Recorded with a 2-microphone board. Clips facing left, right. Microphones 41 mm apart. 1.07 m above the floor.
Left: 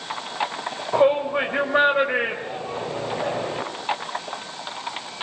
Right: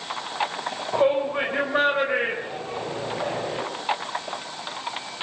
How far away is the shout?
About 4.5 m.